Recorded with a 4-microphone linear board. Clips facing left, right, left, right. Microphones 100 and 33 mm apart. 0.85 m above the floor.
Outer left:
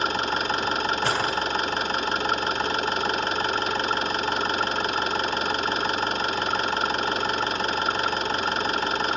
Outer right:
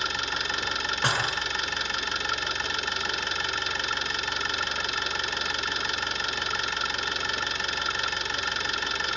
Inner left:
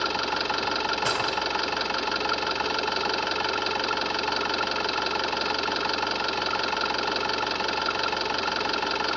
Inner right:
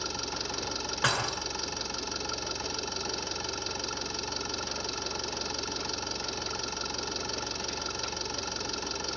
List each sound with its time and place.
0.0 s an engine running: 45° left (ahead or behind), 0.8 m
1.0 s dishes clattering: 80° right, 7 m